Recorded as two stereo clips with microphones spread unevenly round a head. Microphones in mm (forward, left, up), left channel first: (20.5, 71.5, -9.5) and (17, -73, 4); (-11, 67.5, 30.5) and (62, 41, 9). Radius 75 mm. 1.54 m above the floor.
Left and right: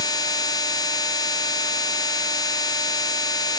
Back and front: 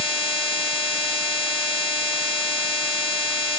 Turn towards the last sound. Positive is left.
No sound to turn to.